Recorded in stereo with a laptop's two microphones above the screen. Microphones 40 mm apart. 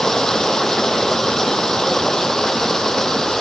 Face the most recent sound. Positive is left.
turn(degrees=15)  # may be behind; listen again after turning